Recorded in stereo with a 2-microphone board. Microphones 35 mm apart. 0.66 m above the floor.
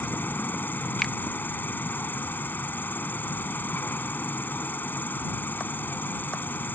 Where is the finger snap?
15° left (ahead or behind).